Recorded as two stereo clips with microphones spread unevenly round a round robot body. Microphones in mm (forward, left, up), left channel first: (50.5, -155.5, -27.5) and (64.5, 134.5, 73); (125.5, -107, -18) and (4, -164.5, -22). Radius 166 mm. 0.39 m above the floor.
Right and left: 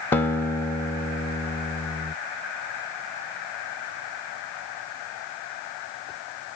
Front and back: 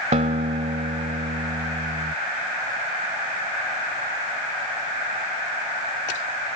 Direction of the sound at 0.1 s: 160° right.